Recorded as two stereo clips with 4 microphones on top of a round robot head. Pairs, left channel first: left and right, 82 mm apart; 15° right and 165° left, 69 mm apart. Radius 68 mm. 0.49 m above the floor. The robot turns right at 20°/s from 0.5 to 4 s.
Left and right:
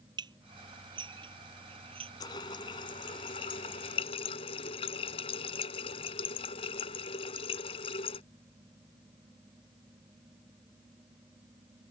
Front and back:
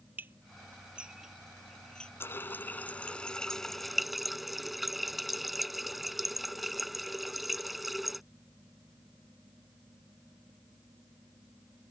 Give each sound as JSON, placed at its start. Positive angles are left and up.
{"t": 0.2, "sound": "dishes clattering", "azimuth_deg": -125}
{"t": 2.2, "sound": "a running tap", "azimuth_deg": 45}